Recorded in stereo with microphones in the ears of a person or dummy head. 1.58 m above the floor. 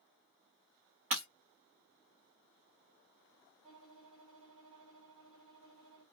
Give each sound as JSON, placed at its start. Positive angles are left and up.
{"t": 1.1, "sound": "breaking glass", "side_deg": -40, "distance_m": 1.5}
{"t": 3.6, "sound": "a violin", "side_deg": -30, "distance_m": 1.8}